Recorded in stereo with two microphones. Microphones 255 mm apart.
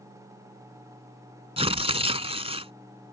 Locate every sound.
1.6 s tearing paper: 20° right (ahead or behind)